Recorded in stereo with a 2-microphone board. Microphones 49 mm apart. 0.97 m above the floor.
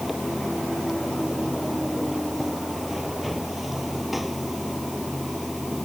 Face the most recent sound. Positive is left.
turn(degrees=-5)  # may be behind; listen again after turning